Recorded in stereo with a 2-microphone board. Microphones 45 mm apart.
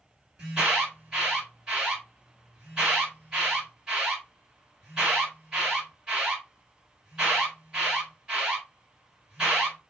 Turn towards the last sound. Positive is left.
turn(degrees=-20)  # may be behind; listen again after turning